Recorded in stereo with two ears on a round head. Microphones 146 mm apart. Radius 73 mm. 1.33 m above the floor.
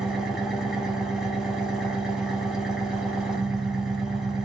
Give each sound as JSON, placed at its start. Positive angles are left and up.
{"t": 0.0, "sound": "an engine running", "side_deg": -5, "distance_m": 0.8}